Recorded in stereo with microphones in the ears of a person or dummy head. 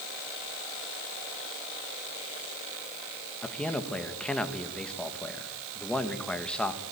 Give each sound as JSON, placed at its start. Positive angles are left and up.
{"t": 3.4, "sound": "a man speaking", "side_deg": 5, "distance_m": 1.6}